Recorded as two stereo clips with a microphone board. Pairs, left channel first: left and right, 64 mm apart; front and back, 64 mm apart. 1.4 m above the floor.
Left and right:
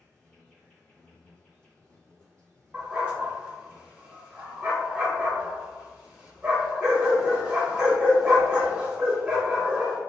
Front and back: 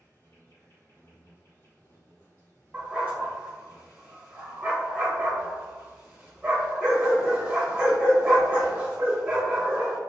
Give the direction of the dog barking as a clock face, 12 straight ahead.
5 o'clock.